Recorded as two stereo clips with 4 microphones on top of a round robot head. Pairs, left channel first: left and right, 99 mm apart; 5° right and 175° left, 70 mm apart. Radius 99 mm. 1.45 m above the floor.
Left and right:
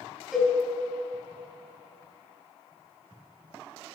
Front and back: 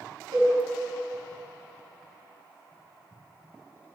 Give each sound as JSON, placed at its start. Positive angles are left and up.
{"t": 0.3, "sound": "a cowbell", "azimuth_deg": 180, "distance_m": 4.5}